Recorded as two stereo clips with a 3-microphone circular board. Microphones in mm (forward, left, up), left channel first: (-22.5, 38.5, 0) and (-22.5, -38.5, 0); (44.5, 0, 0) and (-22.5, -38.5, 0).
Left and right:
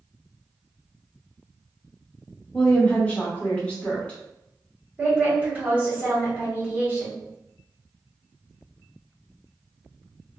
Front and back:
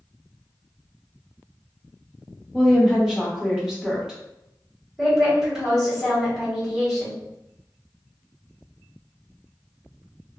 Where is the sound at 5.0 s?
75° right, 1.4 m.